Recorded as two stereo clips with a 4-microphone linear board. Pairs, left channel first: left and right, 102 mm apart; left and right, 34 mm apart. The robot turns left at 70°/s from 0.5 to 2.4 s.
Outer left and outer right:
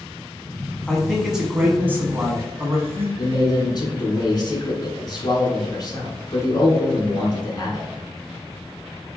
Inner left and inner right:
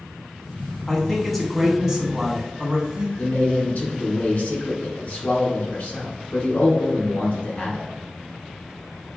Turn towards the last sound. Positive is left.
turn(degrees=45)  # may be behind; listen again after turning